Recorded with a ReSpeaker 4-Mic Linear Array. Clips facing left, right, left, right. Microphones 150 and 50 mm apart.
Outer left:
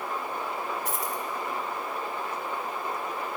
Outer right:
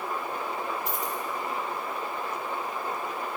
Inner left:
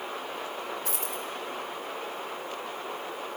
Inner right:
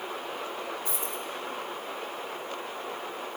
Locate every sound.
0.8 s a dropped coin: 85° left, 1.4 m